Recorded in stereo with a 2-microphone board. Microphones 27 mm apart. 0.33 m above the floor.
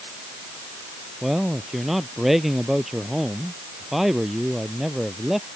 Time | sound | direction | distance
1.2 | a man speaking | centre (ahead or behind) | ?